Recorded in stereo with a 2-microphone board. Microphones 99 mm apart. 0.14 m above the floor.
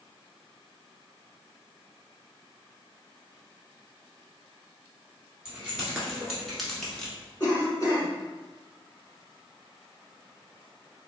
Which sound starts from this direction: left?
A cough, at 7.4 s.